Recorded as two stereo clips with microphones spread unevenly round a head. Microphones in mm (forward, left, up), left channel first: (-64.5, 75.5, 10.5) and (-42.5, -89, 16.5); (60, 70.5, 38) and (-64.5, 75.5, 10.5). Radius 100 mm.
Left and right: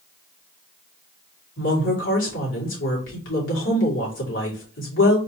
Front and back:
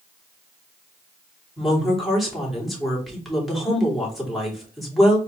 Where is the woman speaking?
90° left, 3 m.